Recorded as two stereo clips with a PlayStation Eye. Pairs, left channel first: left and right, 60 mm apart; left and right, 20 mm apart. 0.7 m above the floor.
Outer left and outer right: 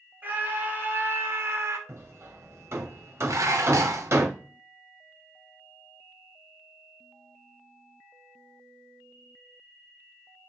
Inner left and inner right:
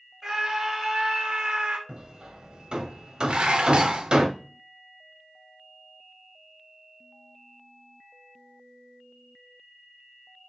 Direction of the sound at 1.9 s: 45° right (ahead or behind).